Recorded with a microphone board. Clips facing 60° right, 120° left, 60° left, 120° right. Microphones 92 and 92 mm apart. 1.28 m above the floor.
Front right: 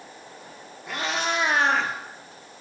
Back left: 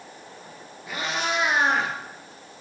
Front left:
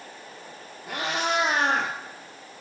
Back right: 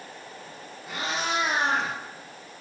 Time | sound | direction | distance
0.9 | a cat meowing | 35° left | 3.5 m